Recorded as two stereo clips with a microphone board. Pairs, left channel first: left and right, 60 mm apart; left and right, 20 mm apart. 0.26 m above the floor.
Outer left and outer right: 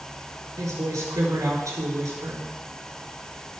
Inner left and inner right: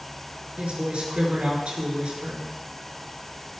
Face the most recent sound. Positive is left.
turn(degrees=-70)  # may be behind; listen again after turning